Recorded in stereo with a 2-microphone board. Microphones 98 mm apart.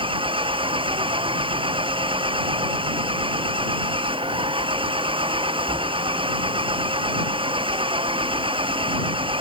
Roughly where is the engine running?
Right.